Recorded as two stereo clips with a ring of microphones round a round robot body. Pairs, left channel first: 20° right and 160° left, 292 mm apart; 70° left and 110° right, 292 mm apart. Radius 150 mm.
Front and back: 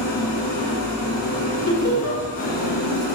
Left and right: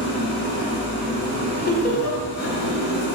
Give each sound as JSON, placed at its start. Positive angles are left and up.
{"t": 0.0, "sound": "an engine running", "azimuth_deg": 10, "distance_m": 2.0}
{"t": 1.7, "sound": "laughter", "azimuth_deg": 10, "distance_m": 1.9}